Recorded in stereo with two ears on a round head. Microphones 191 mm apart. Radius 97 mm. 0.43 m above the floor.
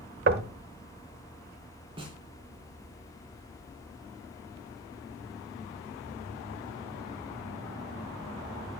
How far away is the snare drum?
About 3.5 m.